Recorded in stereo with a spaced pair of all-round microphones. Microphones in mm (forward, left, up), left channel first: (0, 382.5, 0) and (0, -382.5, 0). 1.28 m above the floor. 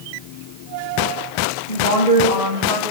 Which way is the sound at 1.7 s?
85° right.